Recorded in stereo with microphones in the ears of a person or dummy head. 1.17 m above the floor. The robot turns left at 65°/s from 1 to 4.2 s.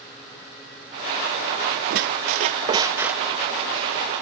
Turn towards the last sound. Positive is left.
turn(degrees=115)